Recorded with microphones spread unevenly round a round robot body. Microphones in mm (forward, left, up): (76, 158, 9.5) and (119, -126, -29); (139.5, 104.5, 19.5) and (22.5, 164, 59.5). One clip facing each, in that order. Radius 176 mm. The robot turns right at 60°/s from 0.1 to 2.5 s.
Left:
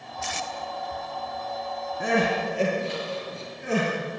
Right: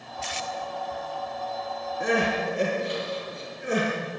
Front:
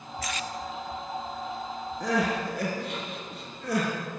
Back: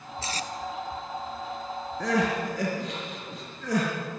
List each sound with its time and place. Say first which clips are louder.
0.2 s tape being pulled: left 1 dB, even; 85° left, 1.6 m; by 0.5 s 100° left, 1.6 m
2.0 s crying: left 1 dB, back 1 dB; 135° left, 6.5 m; by 3.9 s 165° left, 6.5 m